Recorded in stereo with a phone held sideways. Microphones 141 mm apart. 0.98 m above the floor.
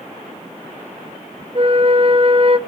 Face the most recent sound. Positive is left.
turn(degrees=-40)  # may be behind; listen again after turning